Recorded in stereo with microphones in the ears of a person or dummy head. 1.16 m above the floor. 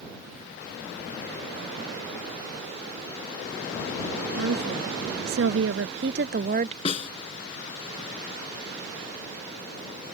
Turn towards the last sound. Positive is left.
turn(degrees=35)  # may be behind; listen again after turning